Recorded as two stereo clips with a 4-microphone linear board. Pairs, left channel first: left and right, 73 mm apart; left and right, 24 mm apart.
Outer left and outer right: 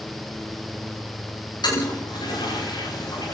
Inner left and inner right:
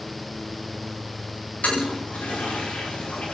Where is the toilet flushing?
85° left, 10 m.